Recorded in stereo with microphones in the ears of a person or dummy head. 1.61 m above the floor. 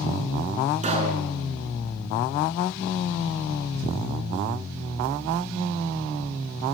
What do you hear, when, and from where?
0.8 s a pop: 35° right (ahead or behind), 4.5 m